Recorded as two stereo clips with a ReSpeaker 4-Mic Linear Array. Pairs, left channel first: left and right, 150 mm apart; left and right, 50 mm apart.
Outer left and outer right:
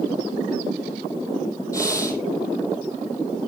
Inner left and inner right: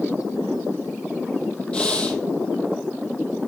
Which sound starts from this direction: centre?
Breathing, at 1.7 s.